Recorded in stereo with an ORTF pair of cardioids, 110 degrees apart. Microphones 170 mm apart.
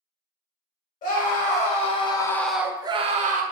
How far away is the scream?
About 1.0 m.